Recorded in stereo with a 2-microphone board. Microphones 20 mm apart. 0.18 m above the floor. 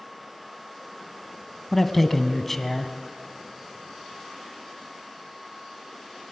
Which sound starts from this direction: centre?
A man speaking, at 1.7 s.